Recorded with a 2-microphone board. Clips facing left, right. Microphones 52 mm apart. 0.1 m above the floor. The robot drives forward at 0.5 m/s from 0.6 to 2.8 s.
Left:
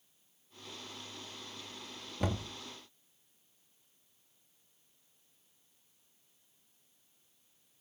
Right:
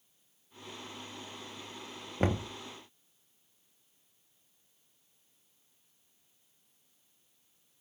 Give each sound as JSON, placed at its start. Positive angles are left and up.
{"t": 2.2, "sound": "knocking", "side_deg": -40, "distance_m": 1.0}